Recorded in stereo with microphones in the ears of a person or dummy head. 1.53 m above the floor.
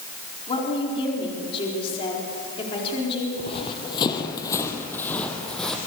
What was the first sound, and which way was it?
A woman speaking, 30° left (ahead or behind).